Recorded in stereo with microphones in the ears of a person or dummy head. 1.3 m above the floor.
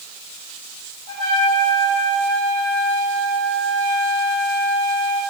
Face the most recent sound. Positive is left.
turn(degrees=-30)  # may be behind; listen again after turning